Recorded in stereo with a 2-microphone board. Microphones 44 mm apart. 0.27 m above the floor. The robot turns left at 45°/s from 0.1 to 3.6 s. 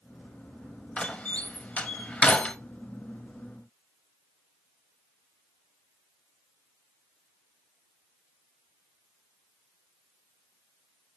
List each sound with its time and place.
1.0 s a door slam: 25° left (ahead or behind), 0.7 m; by 2.6 s 30° left (ahead or behind), 0.7 m